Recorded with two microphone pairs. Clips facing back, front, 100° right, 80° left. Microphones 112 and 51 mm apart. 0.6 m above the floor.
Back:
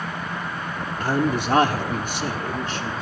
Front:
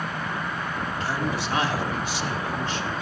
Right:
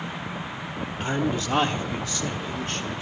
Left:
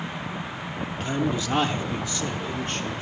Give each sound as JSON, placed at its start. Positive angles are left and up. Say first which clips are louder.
{"t": 1.0, "sound": "a man speaking", "louder": "back 8 dB, even", "azimuth_deg": 180, "distance_m": 0.9}